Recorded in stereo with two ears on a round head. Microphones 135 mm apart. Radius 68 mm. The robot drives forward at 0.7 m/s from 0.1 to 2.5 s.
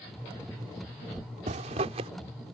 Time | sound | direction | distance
1.5 | a zipper | 55° right (ahead or behind) | ?